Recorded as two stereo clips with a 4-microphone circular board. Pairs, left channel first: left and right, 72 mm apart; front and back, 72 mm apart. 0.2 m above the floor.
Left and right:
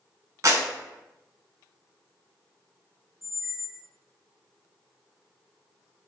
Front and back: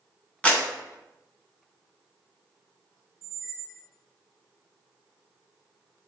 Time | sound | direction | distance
0.4 | a clap | 65° right | 1.5 m
3.2 | a squeak | 5° right | 0.6 m